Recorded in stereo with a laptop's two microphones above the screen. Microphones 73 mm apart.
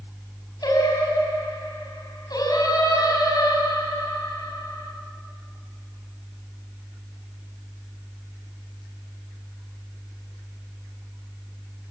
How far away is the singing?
About 5 m.